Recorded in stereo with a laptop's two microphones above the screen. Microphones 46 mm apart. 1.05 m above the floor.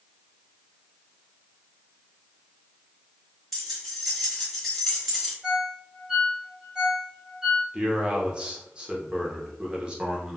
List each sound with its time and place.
3.5 s keys jangling: 5° left (ahead or behind), 0.7 m
5.4 s a ringtone: 15° right (ahead or behind), 0.6 m
7.7 s a man speaking: 20° right (ahead or behind), 0.5 m